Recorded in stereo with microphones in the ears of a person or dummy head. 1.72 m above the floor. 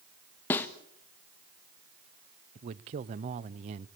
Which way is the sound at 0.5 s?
10° left (ahead or behind).